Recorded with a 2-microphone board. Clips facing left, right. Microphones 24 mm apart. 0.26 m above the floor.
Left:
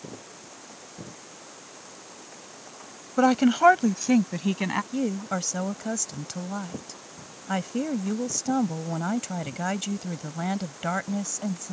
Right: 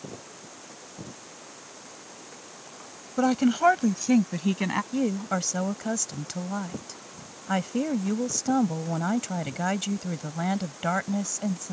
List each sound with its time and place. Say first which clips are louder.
3.2 s a woman speaking: left 3 dB; 25° left (ahead or behind); by 4.8 s centre (ahead or behind)
4.9 s a woman speaking: right 1 dB; 10° right (ahead or behind)